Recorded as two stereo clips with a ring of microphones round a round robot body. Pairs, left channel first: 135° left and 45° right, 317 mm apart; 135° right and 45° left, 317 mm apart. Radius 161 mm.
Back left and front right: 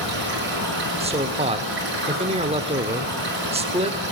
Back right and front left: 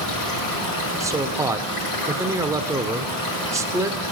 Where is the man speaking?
20° right, 0.8 m.